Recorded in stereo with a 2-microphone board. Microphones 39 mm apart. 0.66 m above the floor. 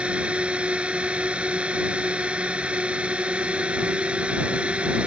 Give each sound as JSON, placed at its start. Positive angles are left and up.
{"t": 0.0, "sound": "a drone", "side_deg": -30}